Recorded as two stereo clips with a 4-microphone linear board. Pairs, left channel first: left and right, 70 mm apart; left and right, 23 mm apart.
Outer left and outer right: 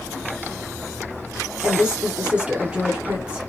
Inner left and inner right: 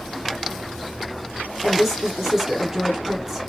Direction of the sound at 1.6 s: 15° right (ahead or behind).